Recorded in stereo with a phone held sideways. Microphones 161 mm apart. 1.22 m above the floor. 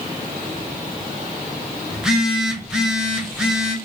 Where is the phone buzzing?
5° right (ahead or behind), 0.8 m.